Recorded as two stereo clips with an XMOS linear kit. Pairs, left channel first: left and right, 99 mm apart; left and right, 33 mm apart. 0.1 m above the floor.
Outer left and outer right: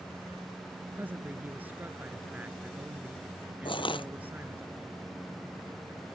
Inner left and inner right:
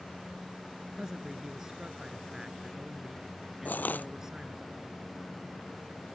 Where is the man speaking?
20° right (ahead or behind).